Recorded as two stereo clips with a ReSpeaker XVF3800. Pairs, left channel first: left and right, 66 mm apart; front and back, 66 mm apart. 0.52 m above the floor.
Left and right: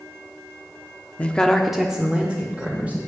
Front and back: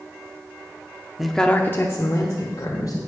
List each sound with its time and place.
1.2 s a woman speaking: 105° left, 0.7 m; by 3.0 s 25° right, 1.7 m